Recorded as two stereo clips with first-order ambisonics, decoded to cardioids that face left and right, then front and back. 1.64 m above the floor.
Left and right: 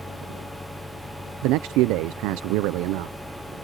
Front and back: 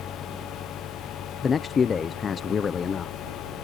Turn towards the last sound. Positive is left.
turn(degrees=-70)